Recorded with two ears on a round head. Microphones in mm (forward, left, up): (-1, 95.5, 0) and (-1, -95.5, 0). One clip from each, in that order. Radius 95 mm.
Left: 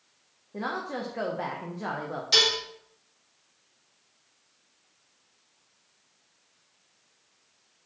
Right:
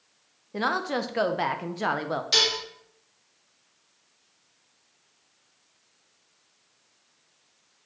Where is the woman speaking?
80° right, 0.5 m.